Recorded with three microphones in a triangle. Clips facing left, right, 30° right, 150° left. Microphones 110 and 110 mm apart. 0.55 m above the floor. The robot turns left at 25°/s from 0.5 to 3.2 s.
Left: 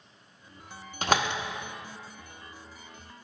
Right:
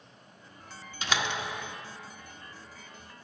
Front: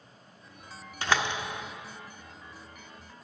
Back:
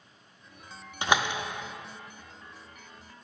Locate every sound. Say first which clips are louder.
1.0 s a door slam: left 5 dB, back 2 dB; 85° left, 0.7 m; by 1.4 s 80° left, 0.7 m